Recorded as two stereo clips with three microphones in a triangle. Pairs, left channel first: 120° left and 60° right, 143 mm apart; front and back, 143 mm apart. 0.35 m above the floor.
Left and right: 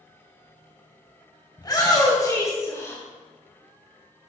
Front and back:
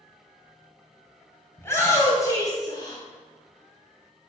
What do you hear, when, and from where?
1.6 s a shout: 70° left, 2.5 m; by 3.0 s 55° left, 2.5 m